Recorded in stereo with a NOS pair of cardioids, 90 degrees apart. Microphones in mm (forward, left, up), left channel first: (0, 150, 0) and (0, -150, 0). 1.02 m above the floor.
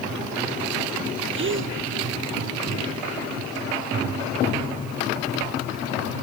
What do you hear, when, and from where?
1.3 s a gasp: 40° right